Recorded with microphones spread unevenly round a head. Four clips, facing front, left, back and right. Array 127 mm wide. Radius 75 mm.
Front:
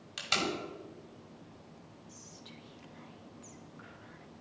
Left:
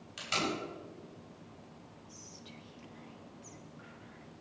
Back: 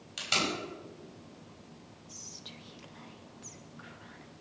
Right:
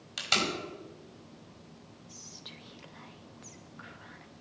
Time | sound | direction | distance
0.2 | tape being pulled | 85° right | 5 m
2.1 | whispering | 115° right | 1.3 m